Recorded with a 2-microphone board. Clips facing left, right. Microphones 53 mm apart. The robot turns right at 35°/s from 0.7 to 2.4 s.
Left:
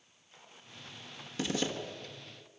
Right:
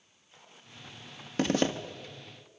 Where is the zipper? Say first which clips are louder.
Right 7 dB; 55° right (ahead or behind), 1.7 m; by 1.7 s 50° right (ahead or behind), 1.7 m.